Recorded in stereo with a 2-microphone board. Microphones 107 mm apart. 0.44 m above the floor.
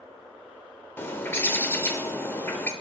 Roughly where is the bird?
Left.